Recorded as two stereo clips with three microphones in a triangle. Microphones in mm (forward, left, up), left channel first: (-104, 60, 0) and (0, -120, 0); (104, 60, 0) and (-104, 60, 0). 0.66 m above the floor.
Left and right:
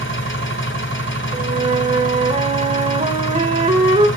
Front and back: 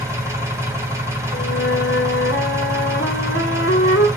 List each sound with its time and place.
0.0 s an engine running: 105° left, 2.5 m
1.3 s a flute: straight ahead, 1.3 m